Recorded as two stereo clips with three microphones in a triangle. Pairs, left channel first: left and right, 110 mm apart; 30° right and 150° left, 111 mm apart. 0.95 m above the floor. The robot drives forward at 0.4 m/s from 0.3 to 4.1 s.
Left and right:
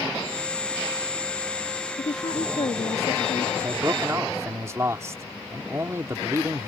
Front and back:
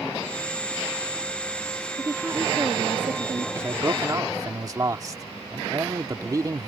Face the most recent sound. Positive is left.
turn(degrees=-155)